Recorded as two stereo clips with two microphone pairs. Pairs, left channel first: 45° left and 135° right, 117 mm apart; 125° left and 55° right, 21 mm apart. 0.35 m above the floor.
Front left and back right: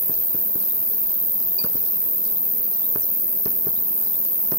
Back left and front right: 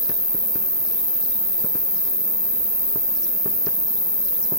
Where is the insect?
70° left, 0.8 m.